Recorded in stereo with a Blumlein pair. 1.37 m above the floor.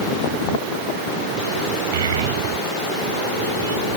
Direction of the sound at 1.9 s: 60° right.